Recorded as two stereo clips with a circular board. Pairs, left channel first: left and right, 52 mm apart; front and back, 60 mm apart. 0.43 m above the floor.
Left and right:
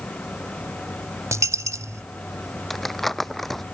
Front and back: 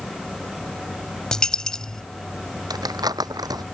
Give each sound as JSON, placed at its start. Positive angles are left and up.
{"t": 1.3, "sound": "a dropped coin", "azimuth_deg": -80}
{"t": 2.7, "sound": "crumpling", "azimuth_deg": 175}